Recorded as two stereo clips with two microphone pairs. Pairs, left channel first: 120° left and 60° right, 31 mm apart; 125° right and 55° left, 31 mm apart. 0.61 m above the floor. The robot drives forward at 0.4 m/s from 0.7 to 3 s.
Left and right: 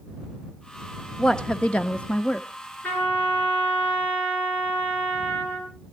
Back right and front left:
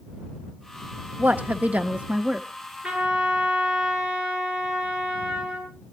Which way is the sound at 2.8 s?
100° left.